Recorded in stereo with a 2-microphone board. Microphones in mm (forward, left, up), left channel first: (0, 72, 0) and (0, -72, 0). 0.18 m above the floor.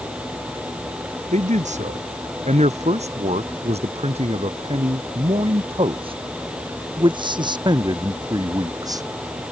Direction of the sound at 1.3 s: 55° right (ahead or behind).